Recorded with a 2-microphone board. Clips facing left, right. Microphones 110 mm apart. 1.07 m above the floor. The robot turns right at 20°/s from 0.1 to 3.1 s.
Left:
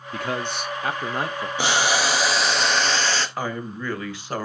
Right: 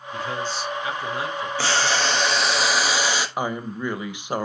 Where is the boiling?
160° left, 1.0 m; by 3.3 s 165° right, 1.0 m.